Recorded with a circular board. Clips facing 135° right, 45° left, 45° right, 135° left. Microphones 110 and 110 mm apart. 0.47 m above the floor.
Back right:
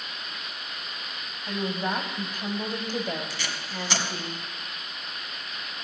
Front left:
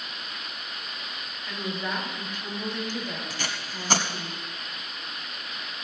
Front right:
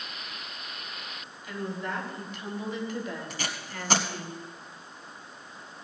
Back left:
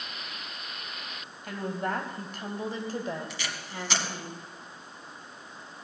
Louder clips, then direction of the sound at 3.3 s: Even, front right 1 dB; straight ahead.